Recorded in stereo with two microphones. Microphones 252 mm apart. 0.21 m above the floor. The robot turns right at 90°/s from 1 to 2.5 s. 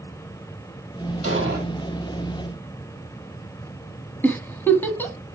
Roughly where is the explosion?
Right.